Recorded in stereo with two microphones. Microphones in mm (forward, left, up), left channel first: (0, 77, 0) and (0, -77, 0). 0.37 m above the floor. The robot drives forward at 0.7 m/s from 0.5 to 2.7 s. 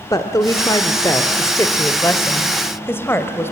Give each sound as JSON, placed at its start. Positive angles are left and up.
{"t": 0.1, "sound": "a woman speaking", "side_deg": 25, "distance_m": 1.3}